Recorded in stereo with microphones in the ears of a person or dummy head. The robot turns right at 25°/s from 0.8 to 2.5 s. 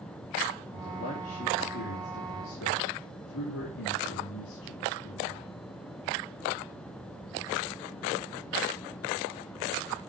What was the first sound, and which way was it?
A man speaking, 35° left.